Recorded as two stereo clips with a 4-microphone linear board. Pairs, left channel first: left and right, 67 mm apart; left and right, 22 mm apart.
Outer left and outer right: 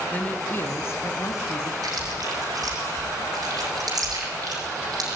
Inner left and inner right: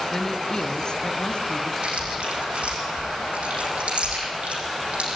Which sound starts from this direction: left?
A woman speaking, at 0.1 s.